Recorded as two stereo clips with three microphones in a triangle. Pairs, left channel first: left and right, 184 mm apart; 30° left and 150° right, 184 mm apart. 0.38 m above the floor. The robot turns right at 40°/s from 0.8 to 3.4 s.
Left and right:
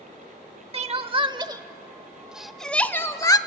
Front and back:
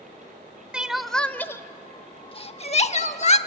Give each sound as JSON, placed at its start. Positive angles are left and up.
{"t": 0.7, "sound": "crying", "azimuth_deg": -70, "distance_m": 0.8}